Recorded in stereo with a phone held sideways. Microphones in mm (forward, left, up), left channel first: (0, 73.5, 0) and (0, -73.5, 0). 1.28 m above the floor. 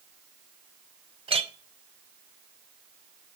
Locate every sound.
1.3 s a clink: 40° right (ahead or behind), 0.7 m